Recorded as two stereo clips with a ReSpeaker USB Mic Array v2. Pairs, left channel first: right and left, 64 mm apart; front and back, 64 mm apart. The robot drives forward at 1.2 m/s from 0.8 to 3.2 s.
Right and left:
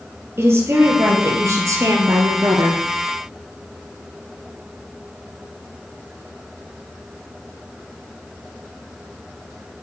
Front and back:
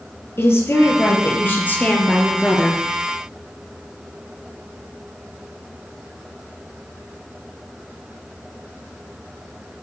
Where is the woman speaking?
45° left, 4 m; by 2.8 s 85° left, 3 m.